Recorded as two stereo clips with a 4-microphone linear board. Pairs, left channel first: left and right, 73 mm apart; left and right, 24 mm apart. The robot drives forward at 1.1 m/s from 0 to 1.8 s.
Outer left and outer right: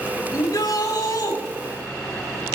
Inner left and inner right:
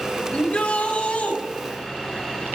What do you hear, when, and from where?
0.3 s a shout: 65° left (ahead or behind), 5 m; by 1.4 s 80° left, 4.5 m